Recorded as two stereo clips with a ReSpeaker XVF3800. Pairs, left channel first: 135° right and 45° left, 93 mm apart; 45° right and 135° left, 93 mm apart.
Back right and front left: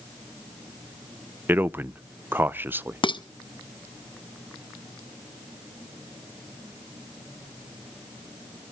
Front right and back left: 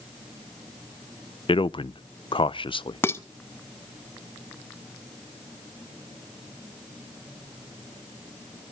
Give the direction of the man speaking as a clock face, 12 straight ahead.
1 o'clock.